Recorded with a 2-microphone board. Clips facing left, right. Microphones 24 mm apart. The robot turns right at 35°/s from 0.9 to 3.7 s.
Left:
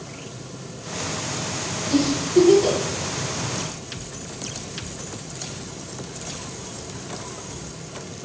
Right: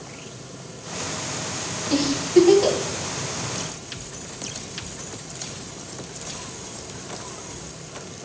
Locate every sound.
1.9 s a giggle: 30° right (ahead or behind), 0.9 m; by 2.8 s 55° right (ahead or behind), 0.9 m